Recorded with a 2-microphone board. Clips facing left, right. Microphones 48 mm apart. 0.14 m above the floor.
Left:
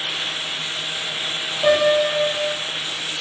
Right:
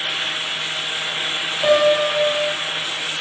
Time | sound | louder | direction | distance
1.6 | a piano | right 1 dB | centre (ahead or behind) | 4.5 m